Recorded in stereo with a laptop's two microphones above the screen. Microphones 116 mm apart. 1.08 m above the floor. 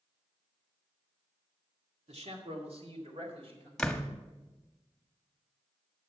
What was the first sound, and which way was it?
A man speaking, 70° right (ahead or behind).